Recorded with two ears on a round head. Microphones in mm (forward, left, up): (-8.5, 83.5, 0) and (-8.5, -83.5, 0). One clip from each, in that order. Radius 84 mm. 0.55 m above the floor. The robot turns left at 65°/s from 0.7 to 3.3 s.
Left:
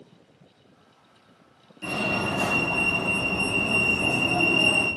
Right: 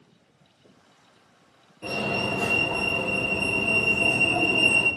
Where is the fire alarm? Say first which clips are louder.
Left 1 dB; 30° left (ahead or behind), 1.7 m; by 4.9 s centre (ahead or behind), 1.7 m.